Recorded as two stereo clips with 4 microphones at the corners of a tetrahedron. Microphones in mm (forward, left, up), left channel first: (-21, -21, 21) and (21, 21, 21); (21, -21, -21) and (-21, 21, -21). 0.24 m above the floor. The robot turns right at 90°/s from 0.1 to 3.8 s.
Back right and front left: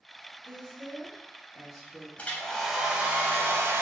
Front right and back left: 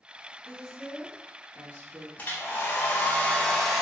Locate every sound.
0.5 s a woman speaking: 20° left, 1.1 m; by 2.1 s 165° left, 1.1 m
2.2 s a hair dryer: 85° right, 0.6 m; by 3.8 s 60° left, 0.6 m